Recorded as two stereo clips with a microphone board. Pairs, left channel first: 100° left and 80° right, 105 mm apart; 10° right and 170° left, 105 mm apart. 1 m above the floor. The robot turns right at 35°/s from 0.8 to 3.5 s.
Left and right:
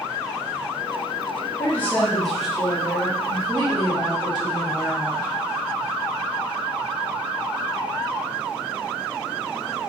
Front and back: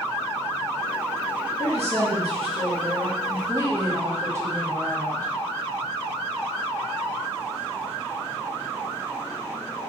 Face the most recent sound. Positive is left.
turn(degrees=-125)